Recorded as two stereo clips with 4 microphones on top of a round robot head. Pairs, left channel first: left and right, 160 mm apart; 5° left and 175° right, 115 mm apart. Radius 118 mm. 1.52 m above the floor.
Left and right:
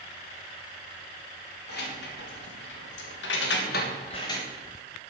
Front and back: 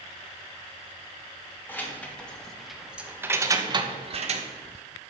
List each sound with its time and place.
1.7 s keys jangling: 75° left, 2 m; by 4.5 s 165° left, 1.2 m